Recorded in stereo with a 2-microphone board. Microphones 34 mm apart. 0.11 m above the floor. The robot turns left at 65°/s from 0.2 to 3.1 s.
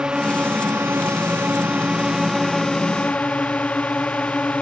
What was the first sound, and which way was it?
A drone, 30° right.